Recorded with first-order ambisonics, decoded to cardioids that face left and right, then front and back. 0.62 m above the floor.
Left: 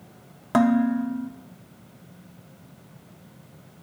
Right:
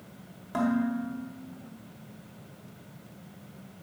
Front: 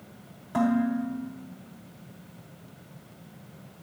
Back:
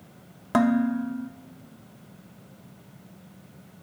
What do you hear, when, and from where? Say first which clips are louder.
0.5 s dishes clattering: left 8 dB, back 3 dB; 140° left, 0.5 m